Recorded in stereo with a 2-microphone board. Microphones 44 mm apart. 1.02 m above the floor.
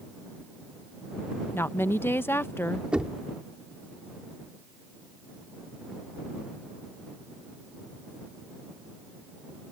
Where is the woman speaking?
60° left (ahead or behind).